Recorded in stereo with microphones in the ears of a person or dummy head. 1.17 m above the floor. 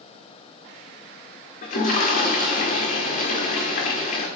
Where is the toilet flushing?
45° left (ahead or behind), 1.4 m.